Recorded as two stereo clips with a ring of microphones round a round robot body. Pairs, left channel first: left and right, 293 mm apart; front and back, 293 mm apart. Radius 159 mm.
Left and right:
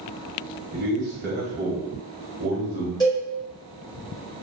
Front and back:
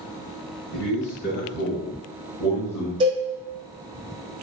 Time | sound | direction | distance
0.7 | a man speaking | straight ahead | 1.4 m
3.0 | a cowbell | 140° left | 1.6 m